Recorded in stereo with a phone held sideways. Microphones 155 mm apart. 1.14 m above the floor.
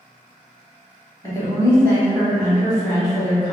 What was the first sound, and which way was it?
A woman speaking, 20° left (ahead or behind).